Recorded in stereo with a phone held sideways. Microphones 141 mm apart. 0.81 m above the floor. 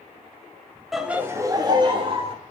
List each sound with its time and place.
0.9 s laughter: centre (ahead or behind), 0.9 m; by 2.4 s 40° right (ahead or behind), 1.8 m